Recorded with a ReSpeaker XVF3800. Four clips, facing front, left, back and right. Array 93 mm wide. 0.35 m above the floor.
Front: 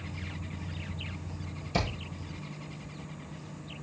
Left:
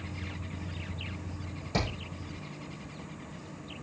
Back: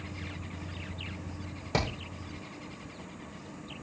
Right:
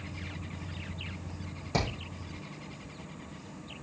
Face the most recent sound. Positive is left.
turn(degrees=-165)